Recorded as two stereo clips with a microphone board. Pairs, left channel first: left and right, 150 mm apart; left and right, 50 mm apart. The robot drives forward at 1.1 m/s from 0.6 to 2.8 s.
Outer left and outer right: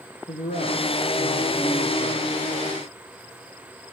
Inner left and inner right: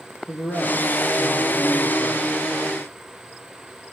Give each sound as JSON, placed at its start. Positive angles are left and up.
{"t": 0.3, "sound": "a man speaking", "side_deg": 65, "distance_m": 8.5}